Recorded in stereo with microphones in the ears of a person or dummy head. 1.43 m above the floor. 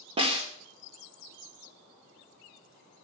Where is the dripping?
No dripping in this recording.